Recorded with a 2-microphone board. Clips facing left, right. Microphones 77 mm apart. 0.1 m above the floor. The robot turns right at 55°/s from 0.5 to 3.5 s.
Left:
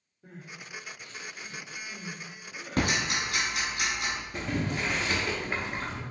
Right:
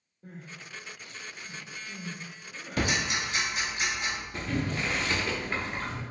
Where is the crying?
45° right (ahead or behind), 1.9 m; by 2.9 s 5° left (ahead or behind), 1.9 m.